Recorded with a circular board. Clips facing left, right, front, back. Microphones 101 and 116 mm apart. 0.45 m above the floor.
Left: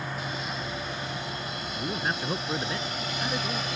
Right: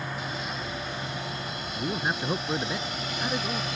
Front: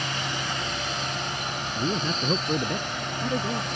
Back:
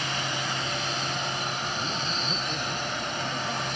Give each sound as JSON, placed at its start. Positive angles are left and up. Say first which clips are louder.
{"t": 1.8, "sound": "a man speaking", "louder": "right 2 dB, front 4 dB", "azimuth_deg": -10}